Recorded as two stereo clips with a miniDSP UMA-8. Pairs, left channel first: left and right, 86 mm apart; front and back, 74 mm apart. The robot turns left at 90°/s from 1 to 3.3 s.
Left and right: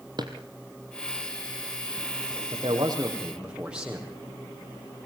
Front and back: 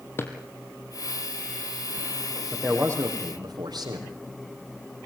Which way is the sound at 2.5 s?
95° right.